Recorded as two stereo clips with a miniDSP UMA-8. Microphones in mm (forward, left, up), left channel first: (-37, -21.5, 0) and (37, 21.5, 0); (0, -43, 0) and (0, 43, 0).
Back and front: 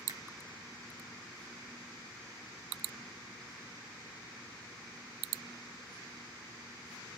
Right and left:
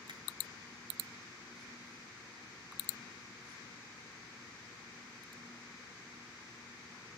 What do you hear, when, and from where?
0.1 s a finger snap: 65° left, 2 m